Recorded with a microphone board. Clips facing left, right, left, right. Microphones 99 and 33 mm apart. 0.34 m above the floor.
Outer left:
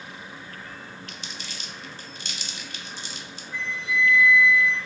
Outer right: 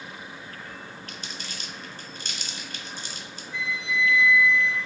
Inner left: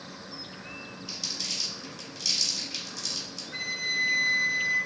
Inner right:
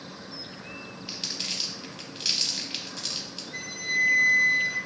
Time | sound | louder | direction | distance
1.1 | crumpling | outer right 1 dB, inner right 1 dB | 50° right (ahead or behind) | 0.6 m
3.5 | a flute | outer left 1 dB, inner right 1 dB | 45° left (ahead or behind) | 0.9 m